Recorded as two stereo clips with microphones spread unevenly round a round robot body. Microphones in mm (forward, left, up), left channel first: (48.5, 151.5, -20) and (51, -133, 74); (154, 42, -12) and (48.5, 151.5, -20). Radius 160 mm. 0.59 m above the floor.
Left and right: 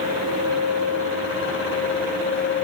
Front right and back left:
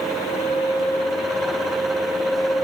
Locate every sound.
Only background noise.